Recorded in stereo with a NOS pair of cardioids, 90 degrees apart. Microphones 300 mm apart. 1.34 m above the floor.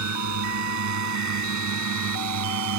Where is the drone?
70° right; by 2.8 s 65° right.